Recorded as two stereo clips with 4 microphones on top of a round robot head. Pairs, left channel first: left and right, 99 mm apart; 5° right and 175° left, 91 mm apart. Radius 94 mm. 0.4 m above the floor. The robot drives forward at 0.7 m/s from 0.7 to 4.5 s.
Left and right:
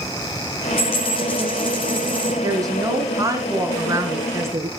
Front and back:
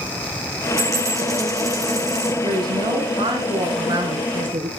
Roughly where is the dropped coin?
Behind left.